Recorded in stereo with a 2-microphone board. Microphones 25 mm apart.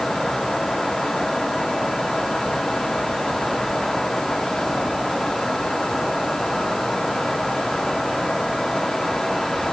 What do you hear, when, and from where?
Only background noise.